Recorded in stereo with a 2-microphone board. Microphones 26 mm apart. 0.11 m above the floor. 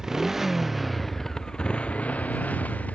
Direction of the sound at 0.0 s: 20° right (ahead or behind).